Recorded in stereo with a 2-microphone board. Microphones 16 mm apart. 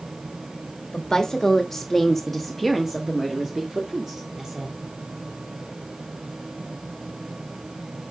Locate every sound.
0.9 s a woman speaking: 40° left (ahead or behind), 1.1 m; by 4.8 s 30° right (ahead or behind), 1.8 m